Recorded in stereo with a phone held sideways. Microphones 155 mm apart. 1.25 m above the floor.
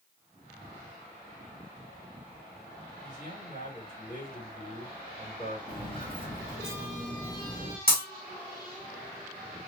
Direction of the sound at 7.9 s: 65° left (ahead or behind).